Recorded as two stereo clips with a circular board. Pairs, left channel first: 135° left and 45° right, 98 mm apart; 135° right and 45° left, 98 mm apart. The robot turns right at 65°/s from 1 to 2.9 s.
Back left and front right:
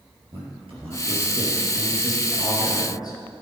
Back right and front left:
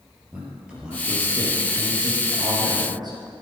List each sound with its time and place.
0.3 s a man speaking: 35° right, 4.5 m; by 3.2 s 85° left, 4.5 m